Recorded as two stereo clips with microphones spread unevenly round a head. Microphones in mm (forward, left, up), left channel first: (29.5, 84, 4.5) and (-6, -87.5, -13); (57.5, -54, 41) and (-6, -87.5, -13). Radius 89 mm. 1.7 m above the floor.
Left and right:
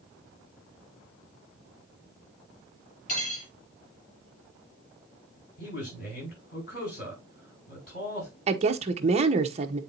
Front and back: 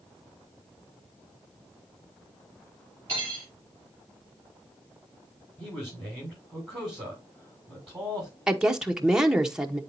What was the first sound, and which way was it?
Cutlery clinking, 120° left.